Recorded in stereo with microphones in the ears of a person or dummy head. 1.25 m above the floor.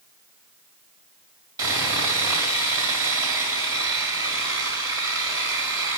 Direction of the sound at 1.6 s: 15° right (ahead or behind).